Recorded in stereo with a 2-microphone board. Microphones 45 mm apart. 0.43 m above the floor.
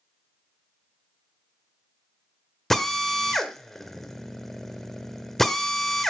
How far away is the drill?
About 1.2 m.